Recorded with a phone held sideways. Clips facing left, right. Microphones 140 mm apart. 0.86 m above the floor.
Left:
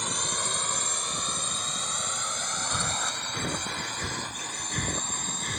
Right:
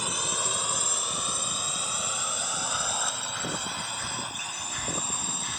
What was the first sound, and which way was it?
A drone, 5° right (ahead or behind).